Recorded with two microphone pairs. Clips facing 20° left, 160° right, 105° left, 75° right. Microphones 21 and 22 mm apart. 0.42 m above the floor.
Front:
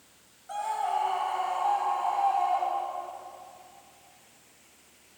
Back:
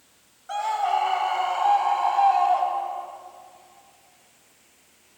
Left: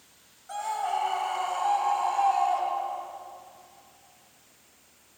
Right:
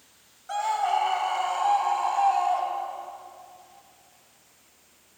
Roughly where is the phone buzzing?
No phone buzzing in this recording.